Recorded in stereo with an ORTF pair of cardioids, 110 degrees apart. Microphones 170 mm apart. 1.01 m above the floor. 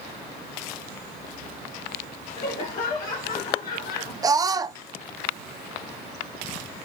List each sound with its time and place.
2.4 s laughter: 45° left, 2 m; by 4.1 s 65° left, 3 m
4.2 s a scream: 20° right, 0.9 m